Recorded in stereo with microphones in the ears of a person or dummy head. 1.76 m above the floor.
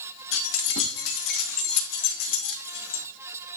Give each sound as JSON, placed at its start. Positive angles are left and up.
{"t": 0.3, "sound": "keys jangling", "side_deg": 70, "distance_m": 2.0}